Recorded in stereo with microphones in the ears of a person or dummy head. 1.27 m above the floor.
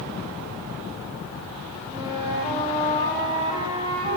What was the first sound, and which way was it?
A flute, 25° right (ahead or behind).